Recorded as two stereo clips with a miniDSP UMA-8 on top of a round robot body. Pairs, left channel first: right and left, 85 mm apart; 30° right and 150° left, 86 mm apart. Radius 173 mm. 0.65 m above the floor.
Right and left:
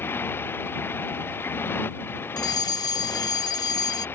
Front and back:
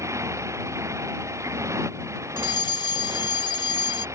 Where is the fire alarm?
55° right.